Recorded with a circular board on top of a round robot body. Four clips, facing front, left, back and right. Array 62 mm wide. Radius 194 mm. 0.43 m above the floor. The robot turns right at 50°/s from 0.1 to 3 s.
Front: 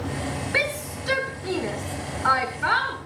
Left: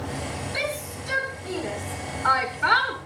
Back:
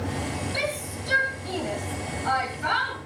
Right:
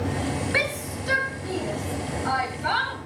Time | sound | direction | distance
0.5 | a shout | 55° right | 7.5 m